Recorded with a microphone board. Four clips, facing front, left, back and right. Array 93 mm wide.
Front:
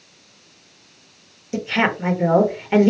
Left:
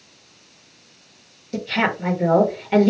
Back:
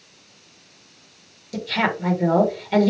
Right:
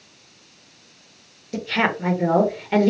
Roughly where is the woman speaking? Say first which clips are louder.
Even, front 3 dB; ahead.